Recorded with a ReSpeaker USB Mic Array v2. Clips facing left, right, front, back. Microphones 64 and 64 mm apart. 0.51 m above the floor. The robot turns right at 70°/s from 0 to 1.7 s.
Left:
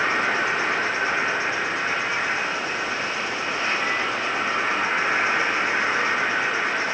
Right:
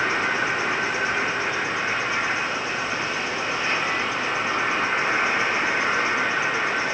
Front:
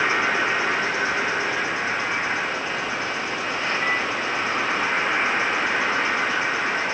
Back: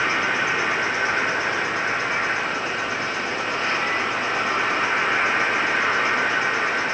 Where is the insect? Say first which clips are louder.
Left 1 dB, front 1 dB; 55° left, 1.7 m; by 7.0 s 175° left, 1.7 m.